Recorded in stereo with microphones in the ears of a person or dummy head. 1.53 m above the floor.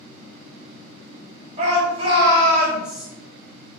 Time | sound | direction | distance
1.6 | a shout | 35° right (ahead or behind) | 1.5 m